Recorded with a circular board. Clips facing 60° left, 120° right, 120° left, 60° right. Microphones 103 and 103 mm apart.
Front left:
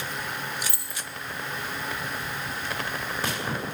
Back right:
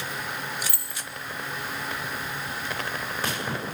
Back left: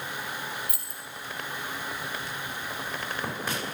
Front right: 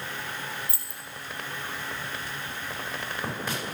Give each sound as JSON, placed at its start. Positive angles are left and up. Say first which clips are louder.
{"t": 0.7, "sound": "keys jangling", "louder": "even, back left 1 dB", "azimuth_deg": -5, "distance_m": 0.9}